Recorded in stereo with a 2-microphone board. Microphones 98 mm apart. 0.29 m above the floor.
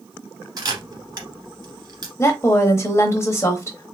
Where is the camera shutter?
40° right (ahead or behind), 1.4 m.